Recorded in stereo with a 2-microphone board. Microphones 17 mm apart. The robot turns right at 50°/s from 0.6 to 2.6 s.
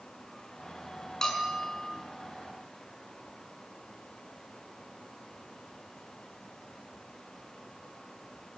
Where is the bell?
35° left, 5.5 m; by 1.9 s 65° left, 5.5 m.